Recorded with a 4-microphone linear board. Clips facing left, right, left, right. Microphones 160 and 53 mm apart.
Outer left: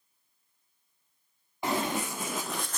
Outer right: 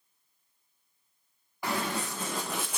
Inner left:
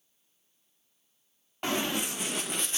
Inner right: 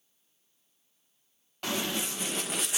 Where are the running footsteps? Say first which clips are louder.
Outer left 2 dB, inner left 2 dB; 25° left (ahead or behind), 1.0 m; by 2.8 s 10° right (ahead or behind), 0.6 m.